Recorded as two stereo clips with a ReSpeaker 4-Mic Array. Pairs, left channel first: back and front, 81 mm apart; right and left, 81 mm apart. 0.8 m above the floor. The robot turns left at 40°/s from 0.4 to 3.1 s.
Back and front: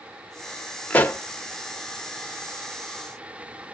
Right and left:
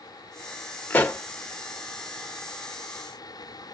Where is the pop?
130° right, 0.8 m; by 1.2 s 140° right, 0.8 m.